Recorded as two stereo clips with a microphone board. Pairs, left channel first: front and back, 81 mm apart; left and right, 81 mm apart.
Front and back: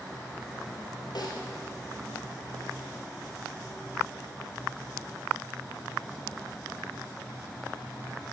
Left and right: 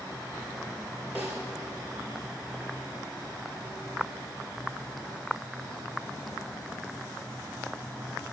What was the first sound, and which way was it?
A snare drum, 25° right.